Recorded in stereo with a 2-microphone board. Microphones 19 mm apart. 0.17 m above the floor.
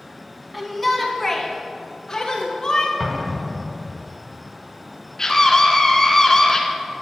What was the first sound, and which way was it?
A shout, 5° right (ahead or behind).